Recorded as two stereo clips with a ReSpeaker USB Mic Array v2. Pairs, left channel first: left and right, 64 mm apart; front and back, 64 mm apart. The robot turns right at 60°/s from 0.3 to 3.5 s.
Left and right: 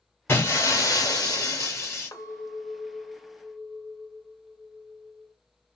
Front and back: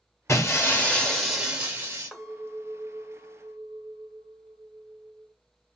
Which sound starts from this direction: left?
A clink, at 2.1 s.